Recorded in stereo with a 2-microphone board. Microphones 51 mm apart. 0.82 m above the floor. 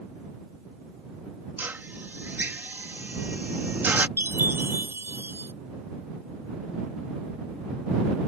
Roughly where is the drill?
Right.